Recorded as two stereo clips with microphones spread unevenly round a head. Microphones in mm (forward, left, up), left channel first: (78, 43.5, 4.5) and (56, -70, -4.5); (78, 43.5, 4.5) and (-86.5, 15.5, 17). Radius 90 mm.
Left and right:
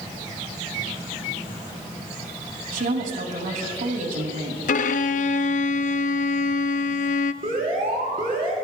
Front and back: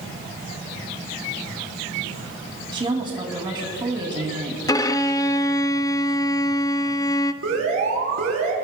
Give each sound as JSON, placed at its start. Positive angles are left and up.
{"t": 2.7, "sound": "a woman speaking", "azimuth_deg": -100, "distance_m": 2.5}
{"t": 4.7, "sound": "a violin", "azimuth_deg": 80, "distance_m": 0.5}
{"t": 7.4, "sound": "an alarm", "azimuth_deg": -150, "distance_m": 3.5}